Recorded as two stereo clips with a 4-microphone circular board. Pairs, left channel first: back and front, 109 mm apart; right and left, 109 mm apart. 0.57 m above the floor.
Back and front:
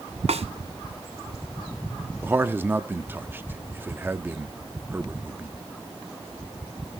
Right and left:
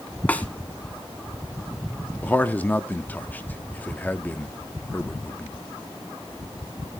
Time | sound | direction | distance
0.3 | a snare drum | 15° right | 1.5 m
2.2 | a man speaking | 40° right | 0.8 m